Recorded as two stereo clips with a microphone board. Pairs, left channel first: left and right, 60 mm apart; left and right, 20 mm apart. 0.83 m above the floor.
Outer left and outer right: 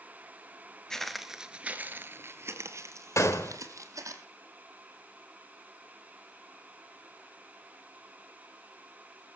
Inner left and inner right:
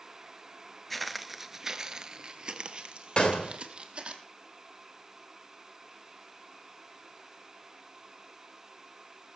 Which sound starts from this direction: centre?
Footsteps, at 0.9 s.